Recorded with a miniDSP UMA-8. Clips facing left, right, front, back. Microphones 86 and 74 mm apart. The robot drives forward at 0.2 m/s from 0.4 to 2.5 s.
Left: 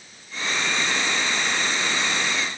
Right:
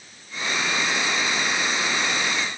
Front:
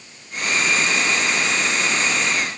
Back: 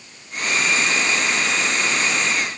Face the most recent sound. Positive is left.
No sound to turn to.